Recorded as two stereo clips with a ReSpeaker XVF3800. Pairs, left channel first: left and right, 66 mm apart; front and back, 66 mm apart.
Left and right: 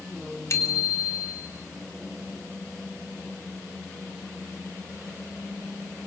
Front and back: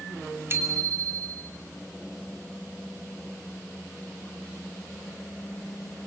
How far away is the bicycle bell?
About 3 m.